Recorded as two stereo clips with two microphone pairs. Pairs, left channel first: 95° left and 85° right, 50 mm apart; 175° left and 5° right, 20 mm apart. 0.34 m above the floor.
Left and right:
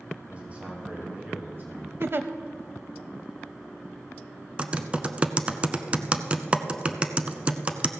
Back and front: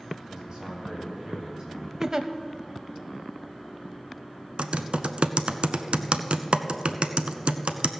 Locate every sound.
0.3 s a man speaking: 35° right, 2.5 m; by 1.9 s 55° right, 3.5 m
2.0 s a giggle: 60° right, 0.6 m
4.6 s typing on a keyboard: 25° right, 0.6 m